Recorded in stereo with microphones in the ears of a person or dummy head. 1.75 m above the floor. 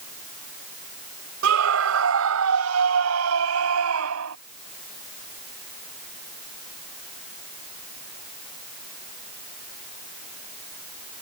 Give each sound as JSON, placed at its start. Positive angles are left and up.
{"t": 1.4, "sound": "a scream", "side_deg": -80}